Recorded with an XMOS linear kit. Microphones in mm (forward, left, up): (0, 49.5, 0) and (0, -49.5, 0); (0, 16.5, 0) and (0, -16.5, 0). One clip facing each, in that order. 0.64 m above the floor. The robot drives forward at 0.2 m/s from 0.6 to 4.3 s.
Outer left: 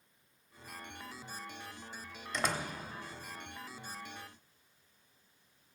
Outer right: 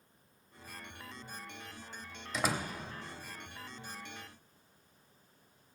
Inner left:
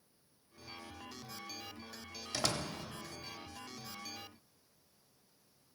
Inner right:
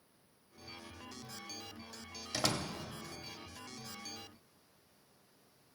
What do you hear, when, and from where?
2.3 s a door slam: 5° right (ahead or behind), 1.0 m